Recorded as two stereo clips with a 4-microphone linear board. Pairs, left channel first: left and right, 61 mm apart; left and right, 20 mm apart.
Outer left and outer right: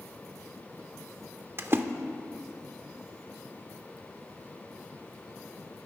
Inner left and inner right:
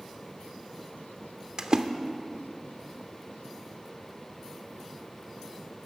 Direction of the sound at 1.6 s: 40° right (ahead or behind).